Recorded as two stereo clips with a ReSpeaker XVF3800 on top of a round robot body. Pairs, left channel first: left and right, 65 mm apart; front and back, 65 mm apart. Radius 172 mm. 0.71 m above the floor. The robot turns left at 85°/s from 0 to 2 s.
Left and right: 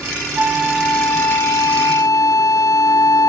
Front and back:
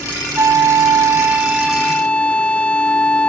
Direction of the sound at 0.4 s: 150° right.